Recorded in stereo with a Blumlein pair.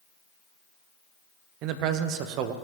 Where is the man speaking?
40° right, 0.8 m.